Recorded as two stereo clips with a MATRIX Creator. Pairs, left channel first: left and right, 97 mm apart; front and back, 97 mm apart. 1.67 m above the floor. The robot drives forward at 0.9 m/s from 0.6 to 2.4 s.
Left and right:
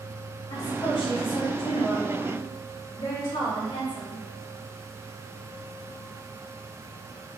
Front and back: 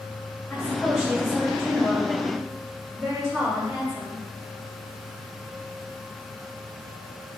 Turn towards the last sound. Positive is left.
turn(degrees=120)